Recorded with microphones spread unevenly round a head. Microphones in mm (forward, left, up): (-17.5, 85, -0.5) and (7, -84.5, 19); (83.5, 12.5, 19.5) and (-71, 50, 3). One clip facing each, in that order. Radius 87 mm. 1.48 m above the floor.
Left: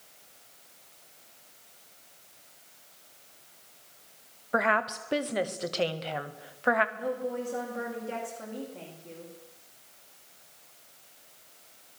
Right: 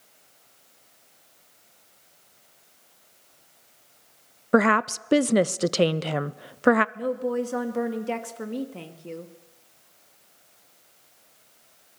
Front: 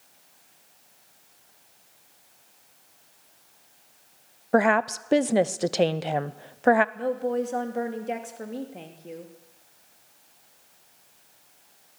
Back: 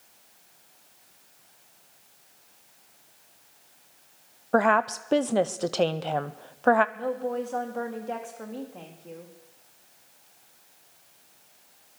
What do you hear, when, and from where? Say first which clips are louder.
4.5 s a woman speaking: right 8 dB, front 1 dB; 95° right, 0.5 m
7.0 s a woman speaking: right 6 dB, front 3 dB; 85° right, 2 m